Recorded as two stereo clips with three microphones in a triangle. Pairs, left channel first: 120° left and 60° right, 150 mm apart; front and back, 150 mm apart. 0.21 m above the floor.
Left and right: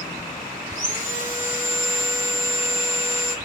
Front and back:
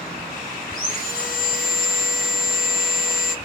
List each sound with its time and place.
0.7 s sawing: straight ahead, 2 m